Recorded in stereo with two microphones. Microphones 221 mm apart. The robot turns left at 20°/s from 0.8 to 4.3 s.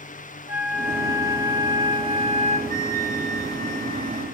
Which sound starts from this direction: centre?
A flute, at 2.7 s.